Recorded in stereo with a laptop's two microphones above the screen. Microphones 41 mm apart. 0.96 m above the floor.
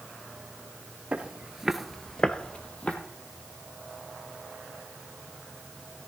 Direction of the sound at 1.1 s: 30° right (ahead or behind).